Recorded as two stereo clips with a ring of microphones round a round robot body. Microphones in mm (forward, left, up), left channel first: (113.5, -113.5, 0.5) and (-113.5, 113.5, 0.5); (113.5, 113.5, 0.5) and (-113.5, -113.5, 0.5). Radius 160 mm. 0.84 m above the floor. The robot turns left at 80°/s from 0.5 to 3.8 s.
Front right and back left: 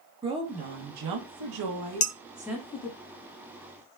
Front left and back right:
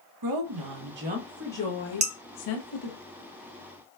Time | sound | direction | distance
0.2 | a woman speaking | 150° right | 0.9 m
2.0 | dishes clattering | 75° right | 0.7 m